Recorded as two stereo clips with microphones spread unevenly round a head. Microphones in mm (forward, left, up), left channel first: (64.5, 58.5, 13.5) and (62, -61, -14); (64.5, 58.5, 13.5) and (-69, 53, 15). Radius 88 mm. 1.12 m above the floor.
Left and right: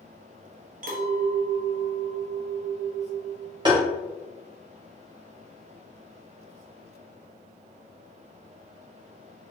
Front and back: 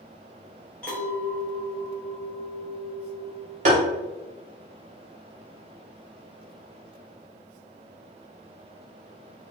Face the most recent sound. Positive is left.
turn(degrees=-140)